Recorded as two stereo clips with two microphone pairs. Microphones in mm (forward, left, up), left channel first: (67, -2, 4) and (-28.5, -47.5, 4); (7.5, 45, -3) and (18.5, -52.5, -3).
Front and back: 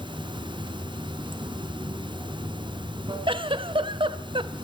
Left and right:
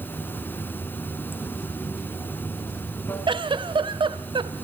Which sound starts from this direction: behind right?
A giggle, at 3.3 s.